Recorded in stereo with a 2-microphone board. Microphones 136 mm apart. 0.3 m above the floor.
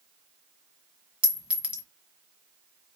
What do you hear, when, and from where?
1.2 s a clink: 10° right (ahead or behind), 1.7 m